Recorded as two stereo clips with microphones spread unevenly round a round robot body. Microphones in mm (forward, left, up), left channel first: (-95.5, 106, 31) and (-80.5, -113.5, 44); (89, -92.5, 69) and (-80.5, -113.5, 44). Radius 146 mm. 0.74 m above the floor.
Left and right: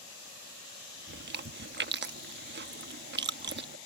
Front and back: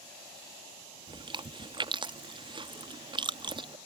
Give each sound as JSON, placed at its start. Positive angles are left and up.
{"t": 1.1, "sound": "chewing", "azimuth_deg": -120}